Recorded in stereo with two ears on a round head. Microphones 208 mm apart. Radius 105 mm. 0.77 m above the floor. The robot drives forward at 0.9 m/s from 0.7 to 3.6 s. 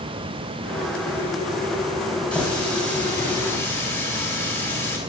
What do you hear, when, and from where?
2.3 s a running tap: 5° left (ahead or behind), 3.5 m; by 5.0 s 10° left (ahead or behind), 2.5 m